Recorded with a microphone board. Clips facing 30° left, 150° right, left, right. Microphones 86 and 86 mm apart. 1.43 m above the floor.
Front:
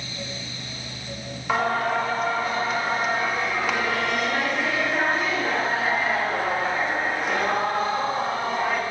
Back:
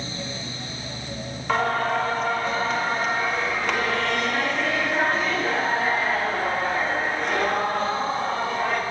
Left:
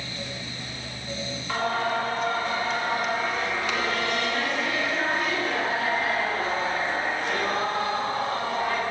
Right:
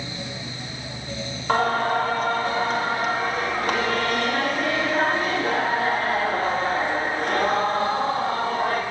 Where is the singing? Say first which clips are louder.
Even, right 5 dB; 55° right, 1.4 m.